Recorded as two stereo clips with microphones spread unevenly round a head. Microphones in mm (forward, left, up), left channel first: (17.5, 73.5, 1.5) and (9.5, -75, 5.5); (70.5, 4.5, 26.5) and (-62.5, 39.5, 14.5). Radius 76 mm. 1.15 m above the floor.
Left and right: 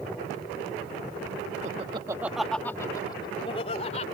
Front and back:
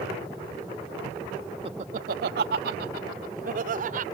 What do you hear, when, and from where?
1.6 s laughter: 140° right; by 4.0 s 135° left